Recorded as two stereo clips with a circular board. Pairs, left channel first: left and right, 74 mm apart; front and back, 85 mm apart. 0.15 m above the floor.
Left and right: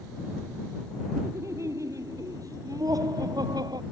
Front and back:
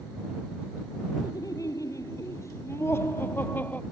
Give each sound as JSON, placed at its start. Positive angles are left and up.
{"t": 1.2, "sound": "laughter", "azimuth_deg": -45}